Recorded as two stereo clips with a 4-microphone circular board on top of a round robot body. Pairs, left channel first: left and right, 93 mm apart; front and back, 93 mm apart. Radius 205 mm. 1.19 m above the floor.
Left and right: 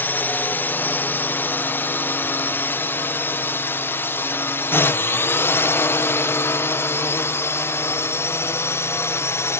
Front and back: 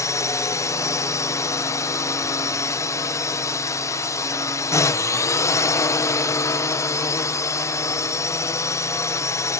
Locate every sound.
0.0 s a drone: 30° left; by 9.6 s 40° left